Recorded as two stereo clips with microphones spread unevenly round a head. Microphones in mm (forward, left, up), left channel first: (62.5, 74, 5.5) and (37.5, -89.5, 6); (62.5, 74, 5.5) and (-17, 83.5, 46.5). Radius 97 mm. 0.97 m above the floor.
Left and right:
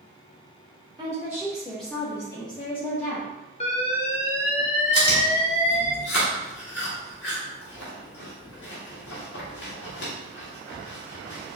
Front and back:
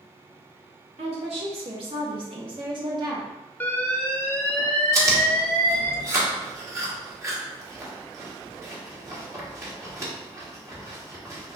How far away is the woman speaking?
About 1.3 m.